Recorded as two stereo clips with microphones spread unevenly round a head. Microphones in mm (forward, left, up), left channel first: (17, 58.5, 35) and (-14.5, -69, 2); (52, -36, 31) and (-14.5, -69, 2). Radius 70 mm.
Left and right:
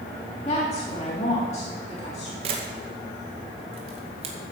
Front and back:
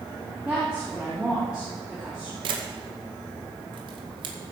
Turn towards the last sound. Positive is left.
turn(degrees=-155)